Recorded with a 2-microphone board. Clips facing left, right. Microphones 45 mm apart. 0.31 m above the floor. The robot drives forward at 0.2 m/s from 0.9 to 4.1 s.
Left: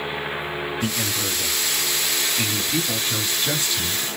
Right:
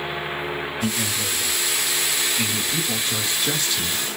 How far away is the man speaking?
About 1.3 m.